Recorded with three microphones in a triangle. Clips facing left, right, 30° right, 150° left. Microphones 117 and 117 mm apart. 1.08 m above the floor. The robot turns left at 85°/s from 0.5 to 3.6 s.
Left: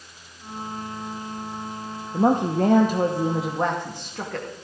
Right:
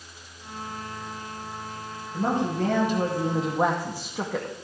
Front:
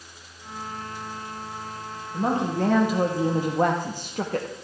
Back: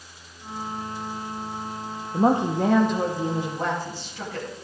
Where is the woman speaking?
115° left, 0.9 m; by 4.5 s 10° right, 0.9 m.